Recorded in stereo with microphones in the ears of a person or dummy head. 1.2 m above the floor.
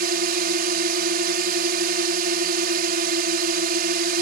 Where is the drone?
50° right (ahead or behind).